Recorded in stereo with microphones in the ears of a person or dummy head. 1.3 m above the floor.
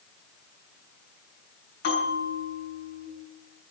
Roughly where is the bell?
Left.